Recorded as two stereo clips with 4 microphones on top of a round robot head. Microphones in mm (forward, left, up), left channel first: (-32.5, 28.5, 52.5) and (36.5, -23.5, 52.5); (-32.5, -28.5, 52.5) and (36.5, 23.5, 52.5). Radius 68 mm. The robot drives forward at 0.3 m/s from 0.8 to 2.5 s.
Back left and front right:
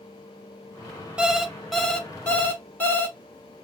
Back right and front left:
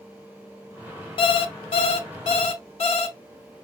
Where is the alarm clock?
115° right, 0.5 m; by 3.2 s 145° right, 0.8 m.